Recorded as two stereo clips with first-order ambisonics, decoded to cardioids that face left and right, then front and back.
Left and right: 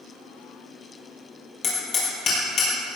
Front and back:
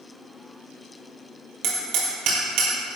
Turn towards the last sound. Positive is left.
turn(degrees=145)